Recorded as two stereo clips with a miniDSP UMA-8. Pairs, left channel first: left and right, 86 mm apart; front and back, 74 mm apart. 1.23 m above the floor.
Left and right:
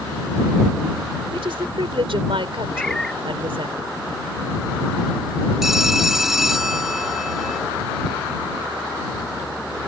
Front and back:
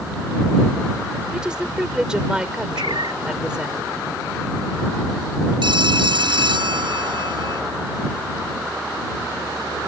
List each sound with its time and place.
1.3 s a woman speaking: 100° right
2.7 s a cat meowing: 175° left
5.6 s a phone ringing: 175° right